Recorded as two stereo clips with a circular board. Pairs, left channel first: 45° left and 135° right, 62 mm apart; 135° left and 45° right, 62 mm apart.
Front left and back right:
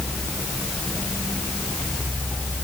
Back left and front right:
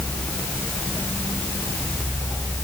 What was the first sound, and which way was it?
Only background noise.